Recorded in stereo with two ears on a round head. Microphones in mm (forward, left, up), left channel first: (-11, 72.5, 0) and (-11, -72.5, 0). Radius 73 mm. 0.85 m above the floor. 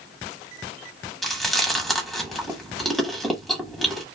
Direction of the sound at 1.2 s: Centre (ahead or behind).